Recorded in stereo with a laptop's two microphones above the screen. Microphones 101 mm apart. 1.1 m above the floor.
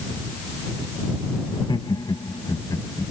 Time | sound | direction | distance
1.5 | laughter | 50° left (ahead or behind) | ?